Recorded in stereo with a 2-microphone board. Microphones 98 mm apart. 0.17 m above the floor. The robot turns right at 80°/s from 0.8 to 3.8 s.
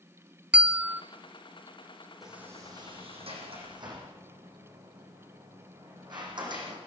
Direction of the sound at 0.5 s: 15° right (ahead or behind).